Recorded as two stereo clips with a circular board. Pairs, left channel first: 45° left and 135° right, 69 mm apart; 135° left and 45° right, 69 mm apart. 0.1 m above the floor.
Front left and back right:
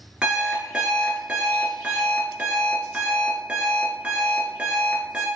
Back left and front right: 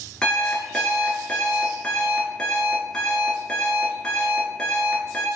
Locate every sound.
0.2 s an alarm clock: 170° right, 0.6 m